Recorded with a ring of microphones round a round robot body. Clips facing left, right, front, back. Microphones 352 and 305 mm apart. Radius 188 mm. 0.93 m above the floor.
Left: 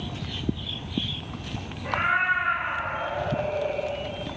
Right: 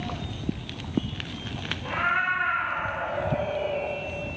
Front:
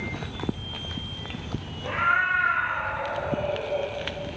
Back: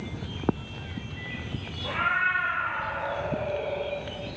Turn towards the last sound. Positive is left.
turn(degrees=-165)